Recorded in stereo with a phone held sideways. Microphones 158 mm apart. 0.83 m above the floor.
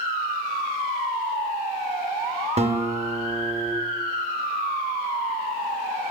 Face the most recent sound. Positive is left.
turn(degrees=-40)  # may be behind; listen again after turning